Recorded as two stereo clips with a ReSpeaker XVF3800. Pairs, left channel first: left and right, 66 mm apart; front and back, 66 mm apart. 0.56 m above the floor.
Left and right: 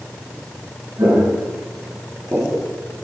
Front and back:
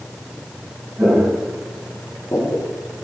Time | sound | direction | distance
1.0 | footsteps | 110° right | 2 m